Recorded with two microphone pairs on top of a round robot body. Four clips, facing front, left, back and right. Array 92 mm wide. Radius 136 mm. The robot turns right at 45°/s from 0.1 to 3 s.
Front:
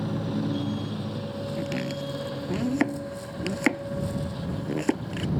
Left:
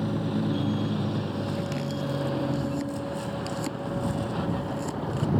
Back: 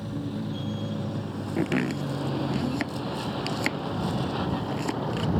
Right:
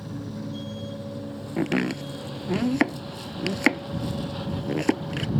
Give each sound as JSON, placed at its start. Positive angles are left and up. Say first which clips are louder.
{"t": 0.0, "sound": "a vehicle", "louder": "left 7 dB, front 4 dB", "azimuth_deg": 60}
{"t": 1.6, "sound": "chopping", "louder": "right 5 dB, back 6 dB", "azimuth_deg": -130}